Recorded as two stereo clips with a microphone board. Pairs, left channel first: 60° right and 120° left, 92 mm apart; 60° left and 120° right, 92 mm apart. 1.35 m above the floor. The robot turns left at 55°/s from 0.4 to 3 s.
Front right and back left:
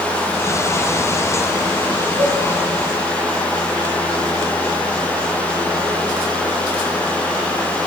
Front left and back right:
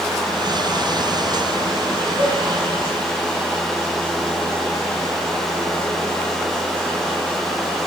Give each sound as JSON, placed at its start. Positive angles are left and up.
{"t": 2.2, "sound": "a cowbell", "azimuth_deg": 175, "distance_m": 7.0}